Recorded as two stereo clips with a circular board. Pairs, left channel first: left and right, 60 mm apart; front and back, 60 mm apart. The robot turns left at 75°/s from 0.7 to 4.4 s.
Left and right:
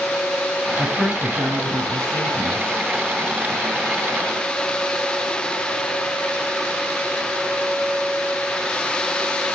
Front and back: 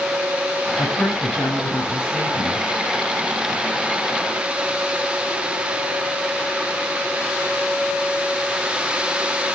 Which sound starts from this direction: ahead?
A woman speaking, at 0.8 s.